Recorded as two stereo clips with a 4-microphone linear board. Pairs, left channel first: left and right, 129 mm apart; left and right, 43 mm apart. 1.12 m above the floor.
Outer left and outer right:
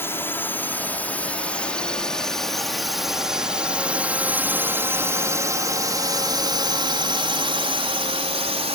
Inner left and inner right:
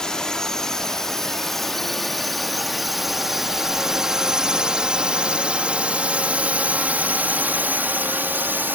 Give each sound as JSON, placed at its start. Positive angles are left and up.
{"t": 0.0, "sound": "a drone", "side_deg": 20}